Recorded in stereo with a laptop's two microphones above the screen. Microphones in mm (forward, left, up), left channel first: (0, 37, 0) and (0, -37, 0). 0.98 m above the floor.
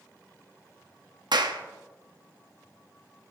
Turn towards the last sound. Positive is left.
turn(degrees=-70)  # may be behind; listen again after turning